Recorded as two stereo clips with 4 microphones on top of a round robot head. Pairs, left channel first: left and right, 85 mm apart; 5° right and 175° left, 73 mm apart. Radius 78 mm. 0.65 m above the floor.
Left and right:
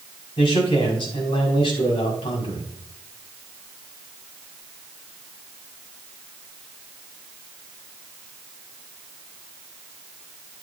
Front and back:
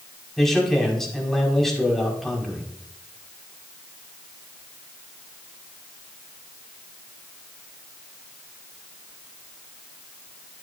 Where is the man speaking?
80° left, 5 m.